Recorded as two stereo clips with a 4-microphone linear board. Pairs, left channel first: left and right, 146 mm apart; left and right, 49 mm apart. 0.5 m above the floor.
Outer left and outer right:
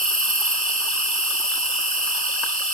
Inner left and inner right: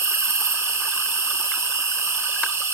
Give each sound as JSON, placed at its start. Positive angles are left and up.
{"t": 0.0, "sound": "an insect", "side_deg": -75, "distance_m": 6.5}